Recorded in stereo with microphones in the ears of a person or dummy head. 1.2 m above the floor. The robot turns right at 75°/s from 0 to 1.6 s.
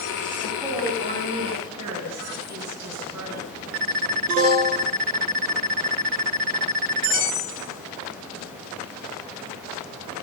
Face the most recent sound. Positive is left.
turn(degrees=-105)